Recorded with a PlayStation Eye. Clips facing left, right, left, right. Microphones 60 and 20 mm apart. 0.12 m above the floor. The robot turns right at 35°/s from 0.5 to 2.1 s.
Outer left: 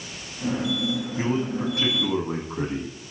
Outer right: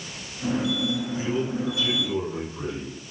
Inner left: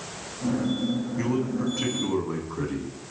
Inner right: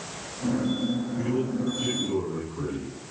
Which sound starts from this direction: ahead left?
A man speaking, at 1.2 s.